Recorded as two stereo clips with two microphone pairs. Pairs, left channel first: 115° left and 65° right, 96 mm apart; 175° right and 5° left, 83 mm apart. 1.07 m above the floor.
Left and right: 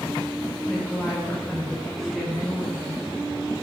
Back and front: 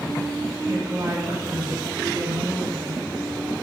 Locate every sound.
0.7 s a woman speaking: 20° left, 1.0 m